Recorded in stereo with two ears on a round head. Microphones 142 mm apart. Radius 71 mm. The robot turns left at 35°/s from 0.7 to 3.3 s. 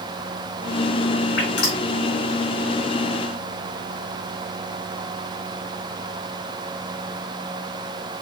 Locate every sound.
1.4 s dripping: 40° left (ahead or behind), 2.5 m; by 1.8 s 25° left (ahead or behind), 2.5 m